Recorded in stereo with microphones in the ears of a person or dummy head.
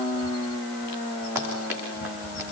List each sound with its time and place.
1.4 s running footsteps: 10° right (ahead or behind), 10 m